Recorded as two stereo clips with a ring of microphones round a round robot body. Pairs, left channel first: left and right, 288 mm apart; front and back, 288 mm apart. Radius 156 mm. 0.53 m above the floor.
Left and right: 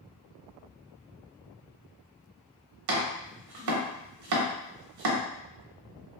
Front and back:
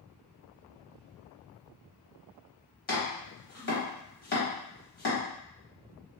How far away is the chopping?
About 0.8 m.